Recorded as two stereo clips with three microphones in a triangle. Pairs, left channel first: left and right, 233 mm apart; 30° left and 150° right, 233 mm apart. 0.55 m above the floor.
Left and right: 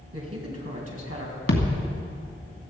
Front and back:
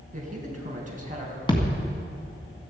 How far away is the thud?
About 2 m.